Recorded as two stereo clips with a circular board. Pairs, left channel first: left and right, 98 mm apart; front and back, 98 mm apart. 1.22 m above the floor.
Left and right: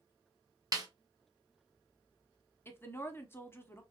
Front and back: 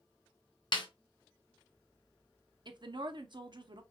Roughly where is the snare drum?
Ahead right.